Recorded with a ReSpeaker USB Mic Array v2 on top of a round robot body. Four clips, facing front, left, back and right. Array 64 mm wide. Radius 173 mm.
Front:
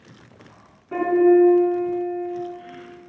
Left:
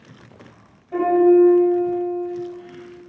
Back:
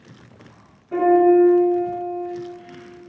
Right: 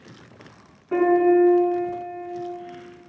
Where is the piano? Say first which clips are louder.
Left 3 dB, back 2 dB; 75° right, 2.5 m.